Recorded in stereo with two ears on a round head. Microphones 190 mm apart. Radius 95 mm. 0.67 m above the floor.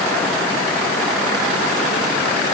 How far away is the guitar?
No guitar in this recording.